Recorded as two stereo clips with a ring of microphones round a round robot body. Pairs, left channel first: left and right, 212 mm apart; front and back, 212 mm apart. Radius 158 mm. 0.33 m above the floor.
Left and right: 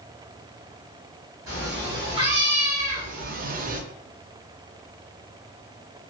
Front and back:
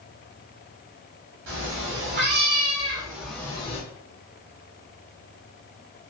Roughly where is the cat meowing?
Behind.